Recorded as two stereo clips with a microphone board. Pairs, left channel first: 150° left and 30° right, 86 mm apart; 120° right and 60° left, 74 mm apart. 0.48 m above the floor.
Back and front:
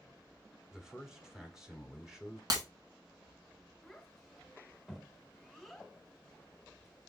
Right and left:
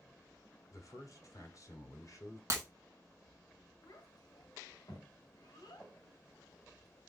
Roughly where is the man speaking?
Right.